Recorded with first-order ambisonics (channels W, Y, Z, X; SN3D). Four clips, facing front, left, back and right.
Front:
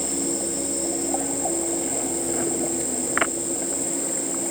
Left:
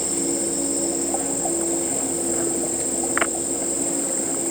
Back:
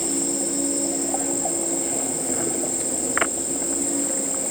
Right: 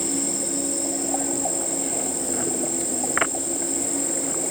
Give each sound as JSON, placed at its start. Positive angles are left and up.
{"t": 0.0, "sound": "an insect", "azimuth_deg": 115, "distance_m": 1.4}